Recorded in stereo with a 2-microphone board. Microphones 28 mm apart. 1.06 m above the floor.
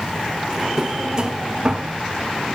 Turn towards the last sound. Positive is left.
turn(degrees=-25)  # may be behind; listen again after turning